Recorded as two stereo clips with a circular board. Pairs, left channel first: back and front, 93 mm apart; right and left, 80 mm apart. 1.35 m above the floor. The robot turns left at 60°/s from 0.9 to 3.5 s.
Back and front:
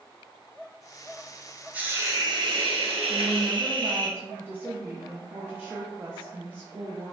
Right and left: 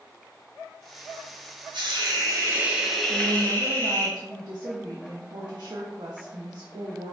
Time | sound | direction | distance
1.7 | a hiss | 75° left | 1.0 m
3.1 | a woman speaking | 95° left | 0.5 m